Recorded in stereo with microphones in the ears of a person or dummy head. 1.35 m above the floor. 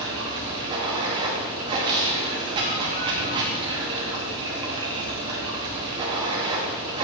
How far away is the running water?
About 1.0 m.